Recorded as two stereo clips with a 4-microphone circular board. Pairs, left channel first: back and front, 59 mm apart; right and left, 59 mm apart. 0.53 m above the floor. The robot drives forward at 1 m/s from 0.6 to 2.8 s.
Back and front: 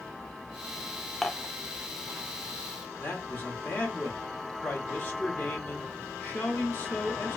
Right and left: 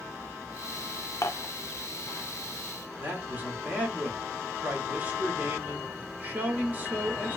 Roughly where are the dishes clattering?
Right.